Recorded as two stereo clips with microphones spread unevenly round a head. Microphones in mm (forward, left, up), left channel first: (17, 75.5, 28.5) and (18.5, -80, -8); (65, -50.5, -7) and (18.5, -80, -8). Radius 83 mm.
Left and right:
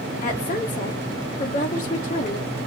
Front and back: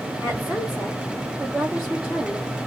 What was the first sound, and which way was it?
A woman speaking, 130° left.